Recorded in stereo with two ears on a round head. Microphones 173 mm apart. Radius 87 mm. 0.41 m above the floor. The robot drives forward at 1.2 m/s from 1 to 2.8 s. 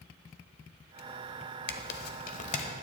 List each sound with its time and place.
1.7 s tearing paper: 55° left (ahead or behind), 0.8 m; by 2.6 s 35° left (ahead or behind), 1.3 m